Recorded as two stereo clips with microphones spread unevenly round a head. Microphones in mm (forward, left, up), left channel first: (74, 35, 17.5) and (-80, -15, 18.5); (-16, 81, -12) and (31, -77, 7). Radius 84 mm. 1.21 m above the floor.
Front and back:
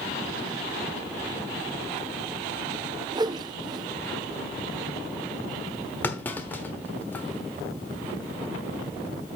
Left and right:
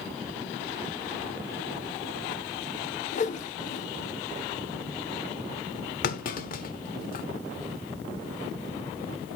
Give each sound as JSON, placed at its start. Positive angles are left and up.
{"t": 3.1, "sound": "a whoosh", "azimuth_deg": 140, "distance_m": 0.6}
{"t": 6.0, "sound": "a clunk", "azimuth_deg": 95, "distance_m": 1.1}